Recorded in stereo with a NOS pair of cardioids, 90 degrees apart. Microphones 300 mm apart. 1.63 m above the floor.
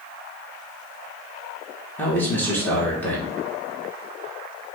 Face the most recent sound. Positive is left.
turn(degrees=5)